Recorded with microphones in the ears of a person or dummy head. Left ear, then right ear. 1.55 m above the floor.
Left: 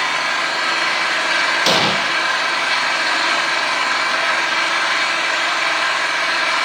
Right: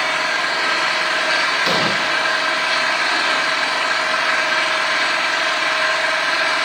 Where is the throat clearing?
I don't hear throat clearing.